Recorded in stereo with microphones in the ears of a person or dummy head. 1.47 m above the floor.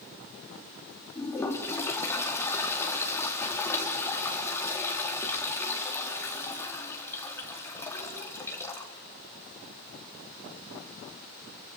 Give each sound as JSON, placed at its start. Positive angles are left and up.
{"t": 1.1, "sound": "a toilet flushing", "side_deg": 20, "distance_m": 3.5}